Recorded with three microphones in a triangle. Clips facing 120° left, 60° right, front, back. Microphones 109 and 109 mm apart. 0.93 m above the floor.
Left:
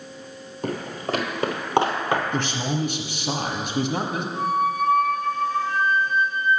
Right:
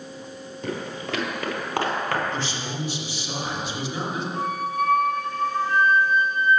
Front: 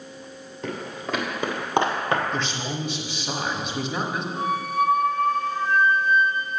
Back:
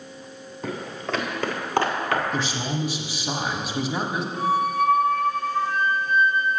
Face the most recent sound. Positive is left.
turn(degrees=-65)